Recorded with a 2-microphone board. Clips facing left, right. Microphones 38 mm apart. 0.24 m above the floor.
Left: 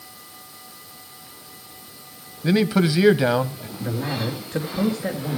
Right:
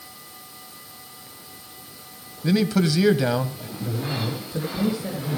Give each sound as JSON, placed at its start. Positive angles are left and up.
{"t": 2.4, "sound": "a man speaking", "side_deg": 20, "distance_m": 1.1}
{"t": 3.8, "sound": "a man speaking", "side_deg": 45, "distance_m": 4.0}